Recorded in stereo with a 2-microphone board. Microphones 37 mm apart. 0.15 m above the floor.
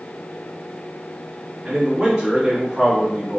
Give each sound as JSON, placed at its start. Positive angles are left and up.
{"t": 1.6, "sound": "a man speaking", "side_deg": -20, "distance_m": 1.7}